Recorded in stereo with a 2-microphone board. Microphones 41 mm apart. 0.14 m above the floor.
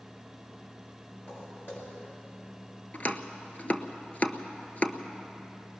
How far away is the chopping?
About 1.0 m.